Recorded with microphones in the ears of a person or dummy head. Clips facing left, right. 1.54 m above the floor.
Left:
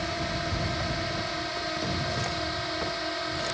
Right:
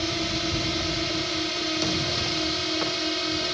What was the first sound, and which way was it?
A drone, 45° right (ahead or behind).